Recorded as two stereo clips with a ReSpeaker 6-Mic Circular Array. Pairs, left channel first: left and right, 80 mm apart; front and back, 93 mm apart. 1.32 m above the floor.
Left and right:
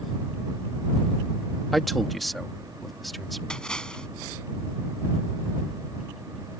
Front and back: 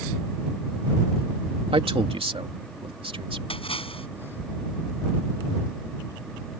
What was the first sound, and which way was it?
A man speaking, straight behind.